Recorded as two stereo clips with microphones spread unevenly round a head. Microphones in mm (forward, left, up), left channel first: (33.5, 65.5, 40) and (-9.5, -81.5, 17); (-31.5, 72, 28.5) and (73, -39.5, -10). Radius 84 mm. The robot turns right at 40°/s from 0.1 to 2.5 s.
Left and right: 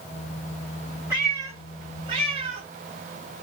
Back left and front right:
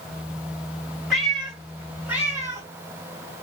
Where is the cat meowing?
170° left, 1.5 m; by 2.7 s 130° right, 1.5 m.